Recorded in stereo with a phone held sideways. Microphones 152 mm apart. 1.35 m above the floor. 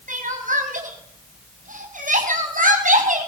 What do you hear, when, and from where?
0.1 s crying: 60° right (ahead or behind), 5.5 m